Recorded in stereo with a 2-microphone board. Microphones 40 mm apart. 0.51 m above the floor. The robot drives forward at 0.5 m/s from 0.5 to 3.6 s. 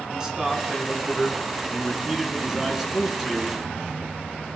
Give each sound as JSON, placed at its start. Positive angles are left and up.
{"t": 0.1, "sound": "a man speaking", "side_deg": -20, "distance_m": 5.0}